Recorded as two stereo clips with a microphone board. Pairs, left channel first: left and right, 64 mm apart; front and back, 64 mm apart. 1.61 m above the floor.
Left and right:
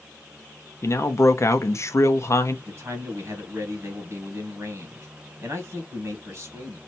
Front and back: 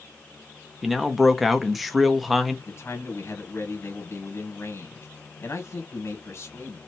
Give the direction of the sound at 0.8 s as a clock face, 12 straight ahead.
9 o'clock.